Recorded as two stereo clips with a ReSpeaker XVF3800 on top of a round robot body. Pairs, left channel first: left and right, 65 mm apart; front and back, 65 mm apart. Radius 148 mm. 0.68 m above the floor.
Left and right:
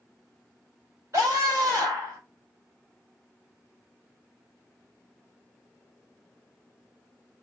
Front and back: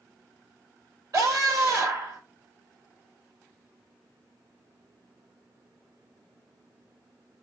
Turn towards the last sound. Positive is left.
turn(degrees=-140)